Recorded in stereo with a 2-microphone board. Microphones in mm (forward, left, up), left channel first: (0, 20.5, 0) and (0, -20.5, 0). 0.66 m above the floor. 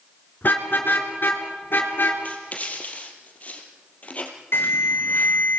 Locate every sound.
0.4 s a car horn: 50° left (ahead or behind), 3.5 m; by 2.1 s 55° left (ahead or behind), 4.5 m
2.2 s writing: 35° left (ahead or behind), 3.5 m
4.5 s an alarm: 60° left (ahead or behind), 4.5 m